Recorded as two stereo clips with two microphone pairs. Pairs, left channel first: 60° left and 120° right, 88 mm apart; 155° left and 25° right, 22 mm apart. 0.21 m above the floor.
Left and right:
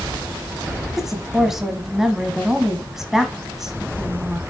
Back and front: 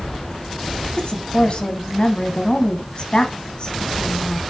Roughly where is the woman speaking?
Behind left.